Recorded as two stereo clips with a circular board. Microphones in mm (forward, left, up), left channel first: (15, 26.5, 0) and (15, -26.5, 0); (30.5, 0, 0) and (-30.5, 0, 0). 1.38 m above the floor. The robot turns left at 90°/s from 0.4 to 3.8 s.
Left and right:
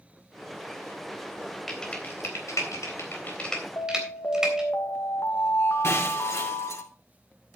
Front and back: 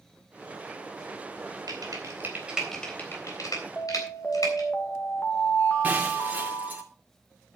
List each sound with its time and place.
1.7 s typing on a keyboard: straight behind, 3.5 m; by 4.7 s 10° right, 3.5 m
3.8 s an alarm: 65° left, 2 m; by 6.8 s 60° left, 2 m
5.8 s breaking glass: 120° left, 2 m